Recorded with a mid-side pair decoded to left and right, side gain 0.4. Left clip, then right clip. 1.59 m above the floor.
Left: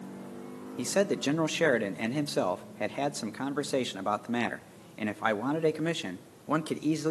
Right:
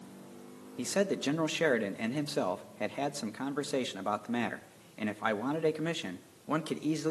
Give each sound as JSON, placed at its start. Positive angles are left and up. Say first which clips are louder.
{"t": 0.8, "sound": "a man speaking", "louder": "left 3 dB", "azimuth_deg": 25, "distance_m": 0.7}